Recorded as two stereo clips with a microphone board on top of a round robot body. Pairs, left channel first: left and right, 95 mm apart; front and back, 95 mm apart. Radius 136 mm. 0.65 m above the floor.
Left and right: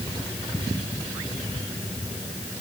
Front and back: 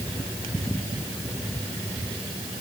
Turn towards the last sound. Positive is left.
No sound to turn to.